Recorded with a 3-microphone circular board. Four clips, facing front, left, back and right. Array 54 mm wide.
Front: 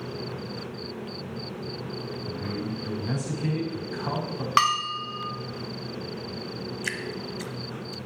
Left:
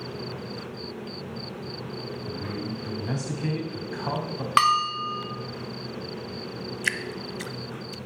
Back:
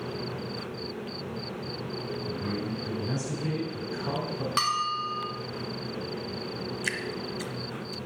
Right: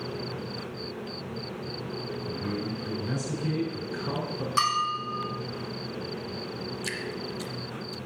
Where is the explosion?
I don't hear an explosion.